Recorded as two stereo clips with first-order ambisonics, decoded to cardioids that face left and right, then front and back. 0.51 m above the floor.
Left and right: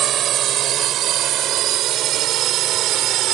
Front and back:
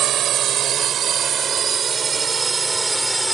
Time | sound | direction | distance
0.0 | a drone | 135° right | ?